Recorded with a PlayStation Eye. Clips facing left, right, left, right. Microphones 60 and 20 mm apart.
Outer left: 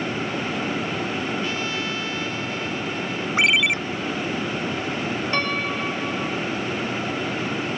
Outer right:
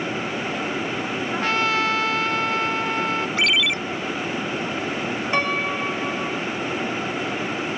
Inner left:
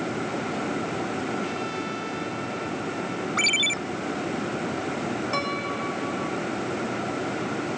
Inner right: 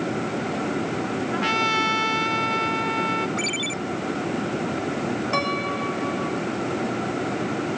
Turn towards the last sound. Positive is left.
turn(degrees=-10)  # may be behind; listen again after turning